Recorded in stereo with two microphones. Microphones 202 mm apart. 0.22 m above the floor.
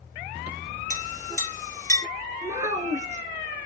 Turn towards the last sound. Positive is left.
turn(degrees=-15)  # may be behind; listen again after turning